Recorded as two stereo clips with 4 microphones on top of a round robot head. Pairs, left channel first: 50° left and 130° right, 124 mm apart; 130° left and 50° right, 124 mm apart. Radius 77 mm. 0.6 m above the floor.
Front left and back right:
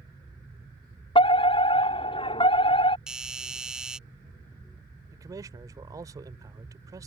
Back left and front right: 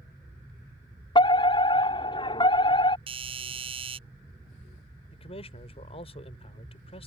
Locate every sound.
1.1 s a fire alarm: 85° left
3.1 s a doorbell: 50° right
5.1 s a man speaking: 170° left